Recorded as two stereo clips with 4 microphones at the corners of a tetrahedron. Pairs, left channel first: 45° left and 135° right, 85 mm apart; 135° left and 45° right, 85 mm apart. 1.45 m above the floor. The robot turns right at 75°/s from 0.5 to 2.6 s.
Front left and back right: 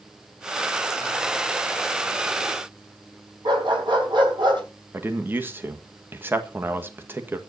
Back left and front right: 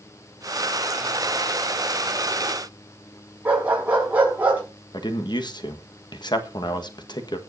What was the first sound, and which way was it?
A dog barking, 115° right.